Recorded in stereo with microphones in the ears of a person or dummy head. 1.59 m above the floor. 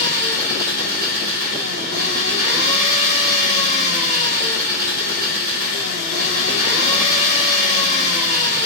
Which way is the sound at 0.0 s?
60° right (ahead or behind).